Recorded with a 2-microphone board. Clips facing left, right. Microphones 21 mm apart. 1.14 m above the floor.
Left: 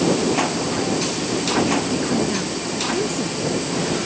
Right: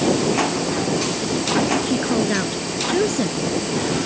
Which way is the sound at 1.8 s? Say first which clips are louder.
Right 1 dB; 35° right (ahead or behind).